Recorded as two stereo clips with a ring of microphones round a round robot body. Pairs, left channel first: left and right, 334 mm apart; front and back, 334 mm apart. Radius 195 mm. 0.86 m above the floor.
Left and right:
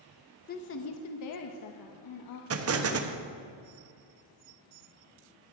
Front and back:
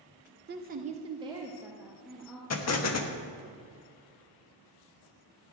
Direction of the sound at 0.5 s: 140° left.